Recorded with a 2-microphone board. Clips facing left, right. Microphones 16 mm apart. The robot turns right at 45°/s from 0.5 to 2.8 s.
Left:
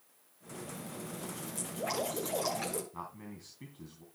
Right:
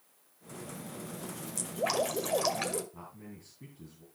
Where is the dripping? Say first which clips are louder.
Right 5 dB; 95° right, 2 m; by 2.8 s 40° right, 2 m.